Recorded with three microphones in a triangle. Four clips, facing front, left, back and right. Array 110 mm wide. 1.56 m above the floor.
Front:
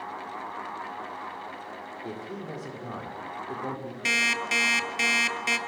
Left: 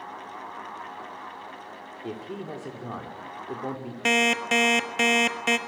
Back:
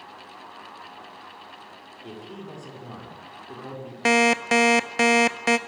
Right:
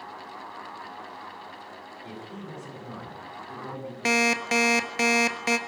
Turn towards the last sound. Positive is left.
turn(degrees=170)